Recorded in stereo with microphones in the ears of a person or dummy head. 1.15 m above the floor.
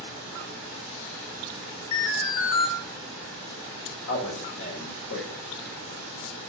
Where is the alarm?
50° left (ahead or behind), 2.5 m.